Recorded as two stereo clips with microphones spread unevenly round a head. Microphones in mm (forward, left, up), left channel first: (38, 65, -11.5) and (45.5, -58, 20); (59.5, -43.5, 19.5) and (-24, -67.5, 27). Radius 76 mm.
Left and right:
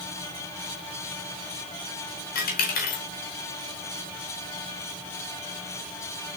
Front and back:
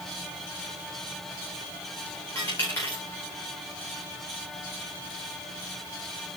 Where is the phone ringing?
I don't hear a phone ringing.